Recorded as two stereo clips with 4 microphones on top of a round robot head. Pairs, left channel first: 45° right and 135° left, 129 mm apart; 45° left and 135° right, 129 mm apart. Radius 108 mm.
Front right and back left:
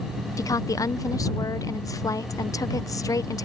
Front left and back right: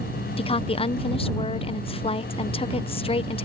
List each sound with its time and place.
0.4 s a woman speaking: 15° left